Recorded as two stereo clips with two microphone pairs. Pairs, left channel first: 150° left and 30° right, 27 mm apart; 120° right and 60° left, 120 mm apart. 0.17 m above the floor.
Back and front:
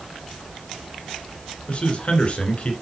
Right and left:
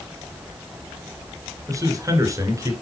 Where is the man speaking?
115° left, 2 m.